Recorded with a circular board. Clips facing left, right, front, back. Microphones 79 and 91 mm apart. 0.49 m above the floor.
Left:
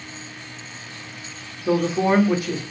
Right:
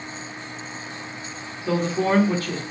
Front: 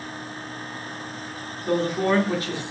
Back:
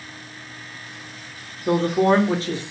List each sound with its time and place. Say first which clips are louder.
1.7 s a man speaking: left 3 dB, back 4 dB; 150° left, 1.4 m